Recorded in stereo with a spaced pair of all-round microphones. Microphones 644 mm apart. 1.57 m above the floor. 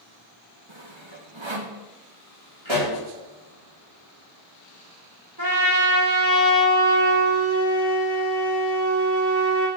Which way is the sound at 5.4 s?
35° right (ahead or behind).